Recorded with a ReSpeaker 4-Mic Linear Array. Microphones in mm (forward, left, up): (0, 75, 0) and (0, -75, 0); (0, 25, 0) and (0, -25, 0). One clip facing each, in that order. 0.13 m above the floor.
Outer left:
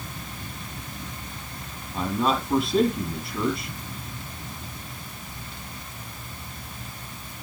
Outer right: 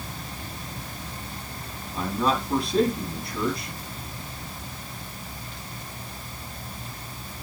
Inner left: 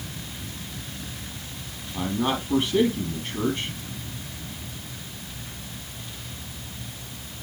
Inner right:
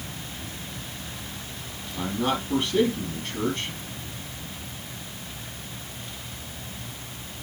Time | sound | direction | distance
1.9 | a man speaking | centre (ahead or behind) | 3.5 m